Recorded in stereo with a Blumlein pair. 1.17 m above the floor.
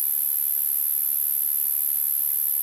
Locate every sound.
0.0 s an insect: 5° right